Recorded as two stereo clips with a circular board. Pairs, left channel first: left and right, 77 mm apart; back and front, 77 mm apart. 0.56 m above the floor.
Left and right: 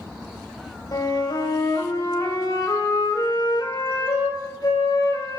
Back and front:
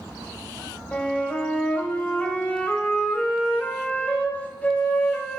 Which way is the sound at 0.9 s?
110° left.